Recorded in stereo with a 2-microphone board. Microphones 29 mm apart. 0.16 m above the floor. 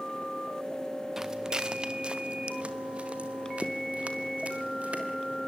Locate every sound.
1.2 s footsteps: 20° right (ahead or behind), 1.0 m; by 5.4 s 55° right (ahead or behind), 4.5 m